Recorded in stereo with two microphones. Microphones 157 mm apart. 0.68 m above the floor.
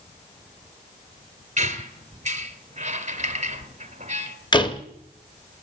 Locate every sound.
1.6 s a squeak: 45° right (ahead or behind), 1.1 m
4.5 s a door slam: 30° left (ahead or behind), 0.9 m